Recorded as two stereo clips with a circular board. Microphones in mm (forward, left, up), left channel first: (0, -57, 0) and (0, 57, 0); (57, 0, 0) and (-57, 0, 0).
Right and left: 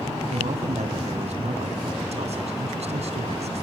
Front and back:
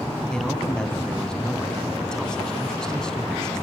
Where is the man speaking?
85° left, 3 m.